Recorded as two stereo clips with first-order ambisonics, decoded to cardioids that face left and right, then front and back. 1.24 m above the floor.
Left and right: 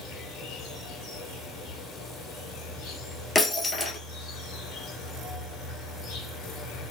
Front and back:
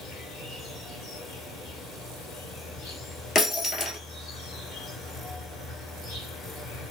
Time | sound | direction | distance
0.0 | an insect | 45° left | 2.5 m
3.4 | breaking glass | 25° left | 1.3 m